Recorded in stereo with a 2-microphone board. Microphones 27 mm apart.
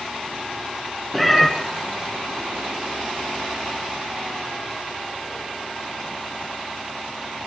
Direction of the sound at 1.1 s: Centre (ahead or behind).